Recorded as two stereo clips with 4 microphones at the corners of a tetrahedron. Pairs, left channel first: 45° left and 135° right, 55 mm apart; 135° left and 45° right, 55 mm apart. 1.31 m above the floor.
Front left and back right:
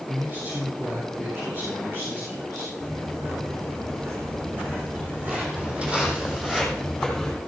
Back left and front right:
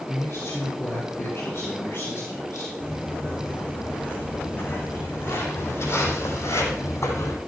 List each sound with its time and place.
0.1 s a man speaking: 170° left, 3.5 m; by 2.7 s straight behind, 5 m
2.8 s footsteps: 160° right, 3.5 m; by 7.4 s 130° left, 2.5 m